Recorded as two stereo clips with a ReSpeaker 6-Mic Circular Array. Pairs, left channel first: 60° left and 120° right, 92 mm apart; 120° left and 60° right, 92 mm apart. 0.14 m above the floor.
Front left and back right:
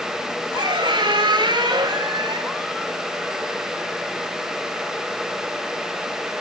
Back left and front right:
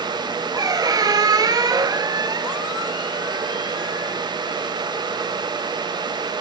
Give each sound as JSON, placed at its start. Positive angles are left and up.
{"t": 0.6, "sound": "a squeak", "azimuth_deg": -95, "distance_m": 0.6}